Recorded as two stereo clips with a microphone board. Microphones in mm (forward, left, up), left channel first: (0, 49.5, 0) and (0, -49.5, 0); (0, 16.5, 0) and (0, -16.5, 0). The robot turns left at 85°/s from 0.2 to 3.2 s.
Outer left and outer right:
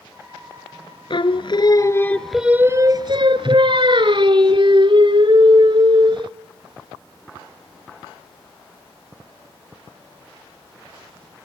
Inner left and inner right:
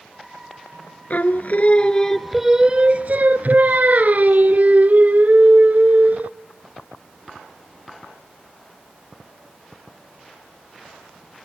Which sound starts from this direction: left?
Singing, at 1.1 s.